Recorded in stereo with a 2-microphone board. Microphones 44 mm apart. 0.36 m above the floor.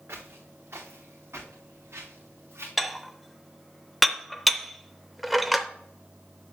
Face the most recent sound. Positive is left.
turn(degrees=0)  # may be behind; listen again after turning